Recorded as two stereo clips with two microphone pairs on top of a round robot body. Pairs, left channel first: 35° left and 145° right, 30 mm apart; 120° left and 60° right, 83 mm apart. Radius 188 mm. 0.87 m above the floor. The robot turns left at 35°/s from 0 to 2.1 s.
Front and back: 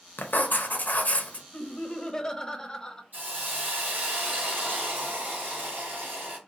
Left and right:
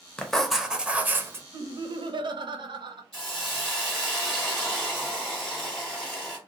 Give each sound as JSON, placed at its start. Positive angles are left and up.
{"t": 0.2, "sound": "writing", "azimuth_deg": 40, "distance_m": 0.7}
{"t": 1.5, "sound": "laughter", "azimuth_deg": -15, "distance_m": 0.7}
{"t": 3.1, "sound": "a hiss", "azimuth_deg": -155, "distance_m": 1.2}